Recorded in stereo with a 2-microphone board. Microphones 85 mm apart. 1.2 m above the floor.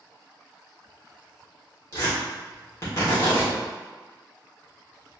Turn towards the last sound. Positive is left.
turn(degrees=35)  # may be behind; listen again after turning